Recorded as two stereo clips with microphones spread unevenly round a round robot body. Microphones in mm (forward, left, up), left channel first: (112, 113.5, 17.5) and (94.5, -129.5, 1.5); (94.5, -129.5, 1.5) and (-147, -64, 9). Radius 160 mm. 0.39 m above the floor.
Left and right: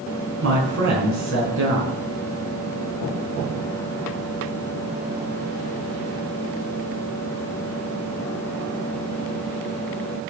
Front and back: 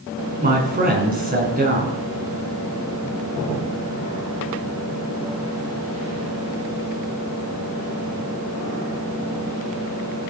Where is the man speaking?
145° right, 5.5 m.